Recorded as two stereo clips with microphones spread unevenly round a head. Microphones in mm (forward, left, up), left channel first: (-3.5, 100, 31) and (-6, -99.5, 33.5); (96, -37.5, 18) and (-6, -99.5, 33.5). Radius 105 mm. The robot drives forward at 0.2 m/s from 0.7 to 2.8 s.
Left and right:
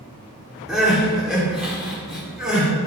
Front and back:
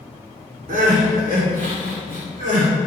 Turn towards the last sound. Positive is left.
turn(degrees=180)